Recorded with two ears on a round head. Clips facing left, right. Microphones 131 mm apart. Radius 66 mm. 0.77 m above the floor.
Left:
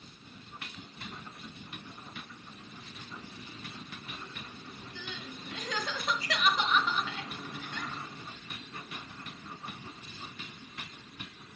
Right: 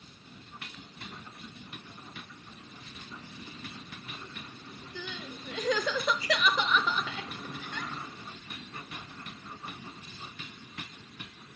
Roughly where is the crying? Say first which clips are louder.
Right 4 dB; right.